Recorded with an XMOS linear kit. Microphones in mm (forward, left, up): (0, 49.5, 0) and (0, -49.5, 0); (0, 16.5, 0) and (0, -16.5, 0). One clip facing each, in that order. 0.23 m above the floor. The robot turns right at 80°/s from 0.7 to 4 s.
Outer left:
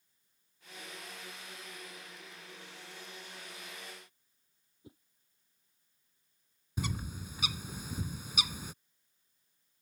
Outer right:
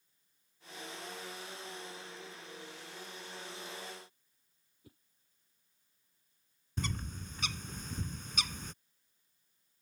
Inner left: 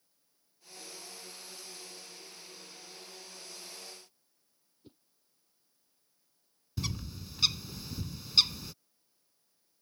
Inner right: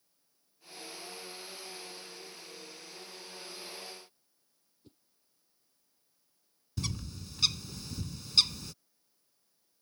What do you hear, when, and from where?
4.8 s a whoosh: 25° left (ahead or behind)
6.8 s a bird: 10° left (ahead or behind)